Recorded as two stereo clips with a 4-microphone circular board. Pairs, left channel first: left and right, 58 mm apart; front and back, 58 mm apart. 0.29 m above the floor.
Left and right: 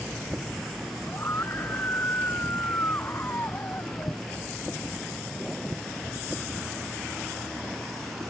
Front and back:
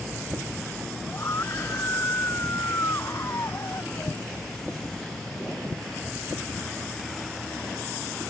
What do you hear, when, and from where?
1.1 s a scream: 45° left; by 4.2 s 40° left